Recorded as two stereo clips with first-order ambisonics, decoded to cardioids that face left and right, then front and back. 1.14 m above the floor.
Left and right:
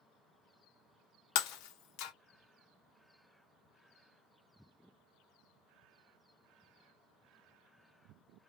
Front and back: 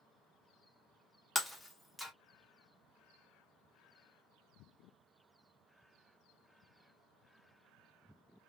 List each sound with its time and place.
1.4 s breaking glass: 85° left, 0.5 m